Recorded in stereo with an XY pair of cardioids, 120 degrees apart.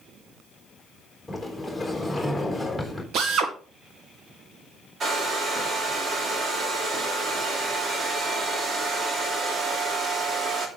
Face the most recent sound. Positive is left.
turn(degrees=-40)